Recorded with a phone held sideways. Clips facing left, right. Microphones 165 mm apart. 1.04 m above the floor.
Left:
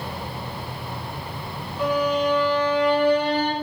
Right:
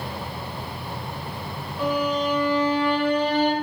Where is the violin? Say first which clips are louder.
Left 2 dB; 10° right (ahead or behind), 0.9 m.